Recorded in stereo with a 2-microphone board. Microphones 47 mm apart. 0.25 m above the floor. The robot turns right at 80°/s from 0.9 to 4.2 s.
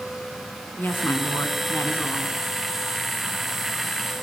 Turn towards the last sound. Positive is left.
turn(degrees=-50)